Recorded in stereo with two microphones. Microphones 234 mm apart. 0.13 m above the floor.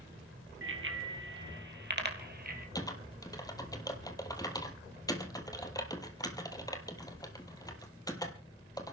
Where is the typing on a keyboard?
15° left (ahead or behind), 1.9 m.